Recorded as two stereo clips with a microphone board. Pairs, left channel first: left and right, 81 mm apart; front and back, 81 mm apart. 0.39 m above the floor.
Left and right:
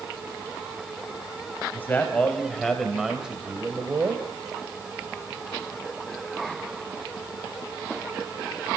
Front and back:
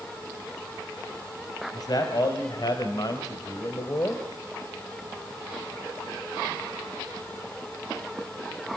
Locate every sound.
1.7 s a man speaking: 30° left, 2.5 m; by 4.2 s 45° right, 2 m